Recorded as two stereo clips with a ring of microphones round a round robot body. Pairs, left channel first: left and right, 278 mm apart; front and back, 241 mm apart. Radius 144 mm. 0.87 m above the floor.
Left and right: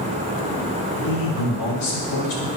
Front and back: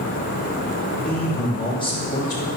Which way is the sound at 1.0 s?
85° left.